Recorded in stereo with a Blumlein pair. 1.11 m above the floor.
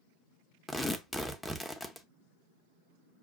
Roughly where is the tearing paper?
Ahead.